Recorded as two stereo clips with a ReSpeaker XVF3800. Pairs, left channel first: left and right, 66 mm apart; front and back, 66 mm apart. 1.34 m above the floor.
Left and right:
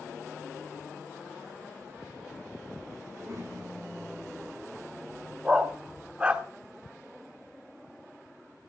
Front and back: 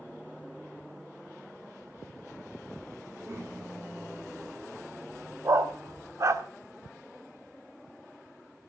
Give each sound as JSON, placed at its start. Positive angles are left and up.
{"t": 3.1, "sound": "a child speaking", "azimuth_deg": -130, "distance_m": 8.0}
{"t": 5.5, "sound": "a dog barking", "azimuth_deg": -155, "distance_m": 1.3}